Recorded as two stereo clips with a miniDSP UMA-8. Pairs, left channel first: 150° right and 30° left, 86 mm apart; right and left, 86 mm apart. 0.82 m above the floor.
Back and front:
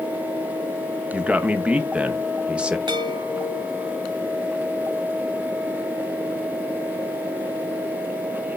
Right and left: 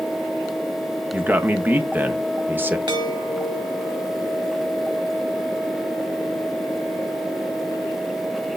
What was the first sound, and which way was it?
A man speaking, 85° left.